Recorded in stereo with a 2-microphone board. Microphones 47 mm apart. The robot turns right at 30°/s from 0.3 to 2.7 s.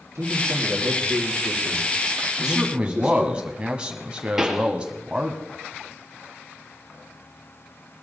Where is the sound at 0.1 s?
95° right, 4.5 m; by 3.4 s 20° right, 4.5 m.